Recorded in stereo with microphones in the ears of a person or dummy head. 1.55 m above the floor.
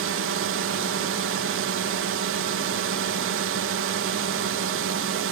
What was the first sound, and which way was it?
A drone, 60° right (ahead or behind).